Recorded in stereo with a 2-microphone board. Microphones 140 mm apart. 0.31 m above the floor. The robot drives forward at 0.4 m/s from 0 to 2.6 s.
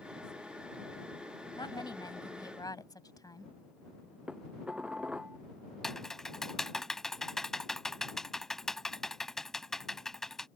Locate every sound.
1.6 s a woman speaking: 35° left (ahead or behind); by 3.5 s 30° left (ahead or behind)
4.3 s dishes clattering: 5° right (ahead or behind)
5.8 s typing on a keyboard: 5° left (ahead or behind)